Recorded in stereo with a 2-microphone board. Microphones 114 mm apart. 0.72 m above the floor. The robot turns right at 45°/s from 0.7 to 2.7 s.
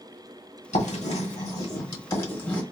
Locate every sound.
0.7 s writing: 75° left (ahead or behind), 1.1 m; by 2.6 s 10° left (ahead or behind), 1.1 m